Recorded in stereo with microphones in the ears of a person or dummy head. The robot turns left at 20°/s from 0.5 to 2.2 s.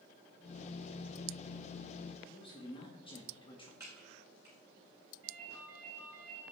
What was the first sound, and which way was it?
A man speaking, 30° left (ahead or behind).